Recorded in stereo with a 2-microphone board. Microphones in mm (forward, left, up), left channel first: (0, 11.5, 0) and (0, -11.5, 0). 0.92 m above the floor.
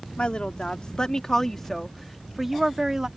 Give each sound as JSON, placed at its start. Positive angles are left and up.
{"t": 0.2, "sound": "a woman speaking", "side_deg": 50}